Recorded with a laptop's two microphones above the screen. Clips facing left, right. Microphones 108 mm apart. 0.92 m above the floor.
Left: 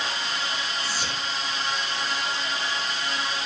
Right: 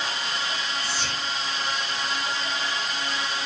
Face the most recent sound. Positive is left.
turn(degrees=15)  # may be behind; listen again after turning